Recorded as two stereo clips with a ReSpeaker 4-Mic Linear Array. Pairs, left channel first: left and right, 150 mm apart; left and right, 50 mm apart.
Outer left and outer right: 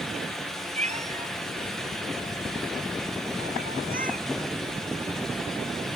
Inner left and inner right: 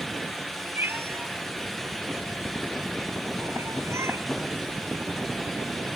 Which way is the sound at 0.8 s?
50° right (ahead or behind).